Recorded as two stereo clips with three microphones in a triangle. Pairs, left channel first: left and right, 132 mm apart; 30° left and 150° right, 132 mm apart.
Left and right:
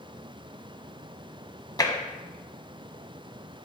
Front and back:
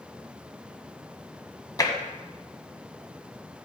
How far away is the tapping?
About 1.1 m.